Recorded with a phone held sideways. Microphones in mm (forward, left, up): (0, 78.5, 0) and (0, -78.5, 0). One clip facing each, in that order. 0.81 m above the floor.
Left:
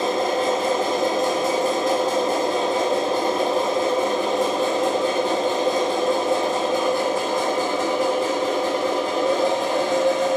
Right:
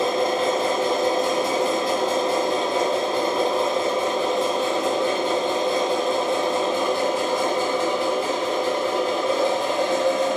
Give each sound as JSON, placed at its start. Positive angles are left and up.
{"t": 0.0, "sound": "a machine running", "side_deg": 50, "distance_m": 0.7}